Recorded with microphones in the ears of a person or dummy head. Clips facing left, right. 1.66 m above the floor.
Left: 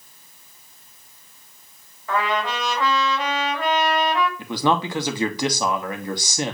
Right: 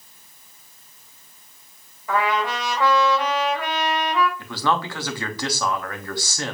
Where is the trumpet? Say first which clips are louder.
Right 1 dB; 15° right (ahead or behind), 3 m.